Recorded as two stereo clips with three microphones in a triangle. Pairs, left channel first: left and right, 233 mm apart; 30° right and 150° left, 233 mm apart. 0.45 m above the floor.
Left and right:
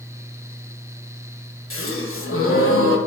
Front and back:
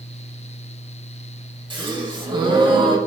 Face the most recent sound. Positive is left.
turn(degrees=85)